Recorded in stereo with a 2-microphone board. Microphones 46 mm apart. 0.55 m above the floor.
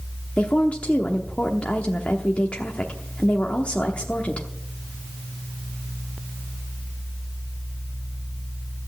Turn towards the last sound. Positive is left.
turn(degrees=30)  # may be behind; listen again after turning